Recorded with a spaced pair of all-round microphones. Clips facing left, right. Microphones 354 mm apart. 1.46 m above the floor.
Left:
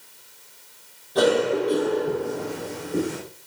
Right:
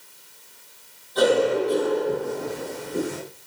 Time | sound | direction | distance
1.1 | a cough | 75° left (ahead or behind) | 5 m